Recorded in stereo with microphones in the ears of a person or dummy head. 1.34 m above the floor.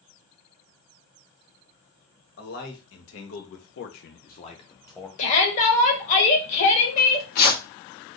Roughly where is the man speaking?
Left.